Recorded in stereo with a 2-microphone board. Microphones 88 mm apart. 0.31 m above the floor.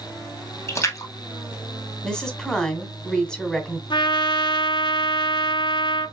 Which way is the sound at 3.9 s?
60° left (ahead or behind).